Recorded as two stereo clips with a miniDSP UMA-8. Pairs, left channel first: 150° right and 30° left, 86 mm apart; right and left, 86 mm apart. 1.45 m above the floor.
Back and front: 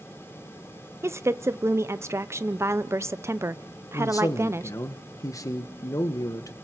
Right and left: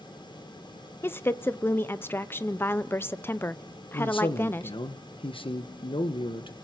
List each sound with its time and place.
1.0 s a woman speaking: 25° right, 0.6 m
3.9 s a man speaking: 100° right, 1.2 m